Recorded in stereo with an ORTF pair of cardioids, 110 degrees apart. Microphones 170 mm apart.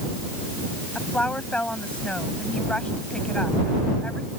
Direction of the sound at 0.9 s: 5° left.